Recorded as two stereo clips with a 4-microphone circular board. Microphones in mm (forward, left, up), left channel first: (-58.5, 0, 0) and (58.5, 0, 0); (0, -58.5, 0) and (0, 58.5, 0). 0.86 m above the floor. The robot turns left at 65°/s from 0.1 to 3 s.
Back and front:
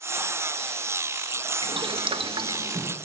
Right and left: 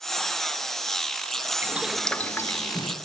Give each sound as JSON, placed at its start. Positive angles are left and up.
{"t": 1.6, "sound": "boiling", "azimuth_deg": 20, "distance_m": 0.6}